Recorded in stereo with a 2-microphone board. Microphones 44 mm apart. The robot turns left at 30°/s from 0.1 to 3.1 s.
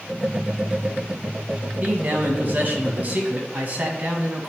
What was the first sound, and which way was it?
A man speaking, 70° right.